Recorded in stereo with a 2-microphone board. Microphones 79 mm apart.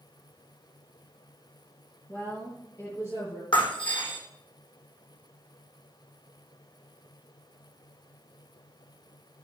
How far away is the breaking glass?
About 4.5 m.